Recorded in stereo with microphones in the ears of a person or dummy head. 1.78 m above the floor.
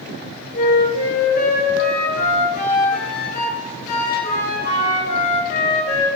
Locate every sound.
0.5 s a flute: 60° left (ahead or behind), 2.0 m